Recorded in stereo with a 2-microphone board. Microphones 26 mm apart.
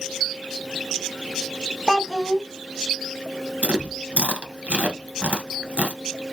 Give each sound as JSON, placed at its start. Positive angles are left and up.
{"t": 1.9, "sound": "a child speaking", "side_deg": 5, "distance_m": 0.6}
{"t": 3.6, "sound": "chewing", "side_deg": -60, "distance_m": 1.0}